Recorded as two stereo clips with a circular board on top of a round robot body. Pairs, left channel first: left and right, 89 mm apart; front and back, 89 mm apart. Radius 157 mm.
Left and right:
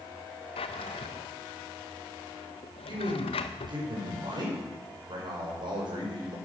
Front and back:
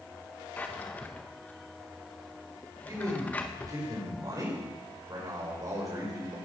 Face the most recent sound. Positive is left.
turn(degrees=-130)